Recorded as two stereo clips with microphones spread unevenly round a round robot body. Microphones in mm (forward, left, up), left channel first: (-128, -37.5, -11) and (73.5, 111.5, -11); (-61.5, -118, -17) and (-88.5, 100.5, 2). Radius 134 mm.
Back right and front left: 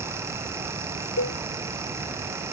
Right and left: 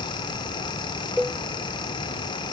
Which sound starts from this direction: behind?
A cowbell, at 1.2 s.